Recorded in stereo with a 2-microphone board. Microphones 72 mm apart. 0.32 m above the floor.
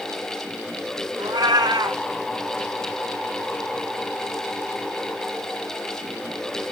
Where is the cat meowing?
70° right (ahead or behind), 1.1 m.